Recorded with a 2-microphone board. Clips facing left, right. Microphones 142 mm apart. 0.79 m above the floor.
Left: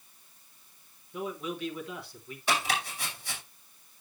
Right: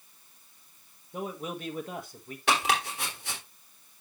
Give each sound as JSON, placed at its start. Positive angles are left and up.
{"t": 1.1, "sound": "a man speaking", "side_deg": -45, "distance_m": 1.4}
{"t": 2.5, "sound": "chopping", "side_deg": -75, "distance_m": 3.5}